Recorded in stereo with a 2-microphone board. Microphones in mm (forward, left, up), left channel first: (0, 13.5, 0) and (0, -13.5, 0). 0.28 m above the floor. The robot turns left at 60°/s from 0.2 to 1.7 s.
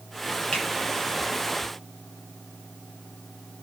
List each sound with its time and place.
0.5 s a finger snap: 35° left (ahead or behind), 8.5 m; by 0.7 s 25° left (ahead or behind), 8.5 m